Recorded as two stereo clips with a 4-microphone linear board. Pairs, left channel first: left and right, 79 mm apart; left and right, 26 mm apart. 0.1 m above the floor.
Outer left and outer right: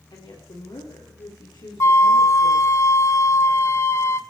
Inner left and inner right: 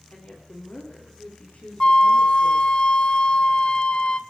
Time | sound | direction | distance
0.1 | a woman speaking | 75° left (ahead or behind) | 6.5 m
1.8 | a flute | 40° left (ahead or behind) | 0.6 m